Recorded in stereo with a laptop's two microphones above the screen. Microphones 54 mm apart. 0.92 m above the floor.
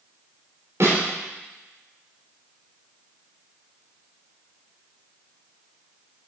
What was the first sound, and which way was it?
A snare drum, 60° right (ahead or behind).